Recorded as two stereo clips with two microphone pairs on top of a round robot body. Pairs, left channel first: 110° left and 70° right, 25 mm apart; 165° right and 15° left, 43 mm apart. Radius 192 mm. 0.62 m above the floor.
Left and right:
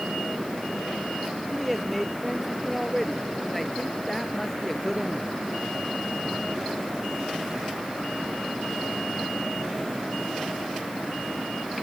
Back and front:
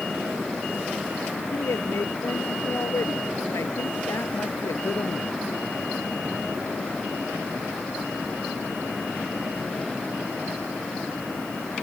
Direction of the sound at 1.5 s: 160° right.